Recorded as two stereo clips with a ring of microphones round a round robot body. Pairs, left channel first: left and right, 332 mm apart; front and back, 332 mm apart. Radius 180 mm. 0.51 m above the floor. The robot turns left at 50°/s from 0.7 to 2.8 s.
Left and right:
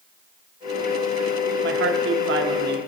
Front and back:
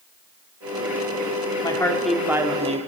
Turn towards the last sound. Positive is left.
turn(degrees=-125)